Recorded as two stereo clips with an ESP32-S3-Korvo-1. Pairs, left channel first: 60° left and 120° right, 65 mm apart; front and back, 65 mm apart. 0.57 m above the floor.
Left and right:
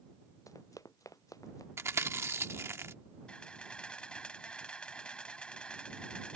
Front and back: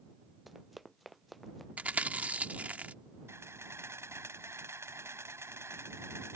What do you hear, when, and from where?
0.5 s running footsteps: 90° left
1.8 s chewing: 125° right
3.3 s a camera shutter: 135° left